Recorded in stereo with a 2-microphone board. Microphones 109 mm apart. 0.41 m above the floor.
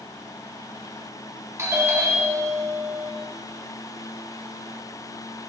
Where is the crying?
No crying in this recording.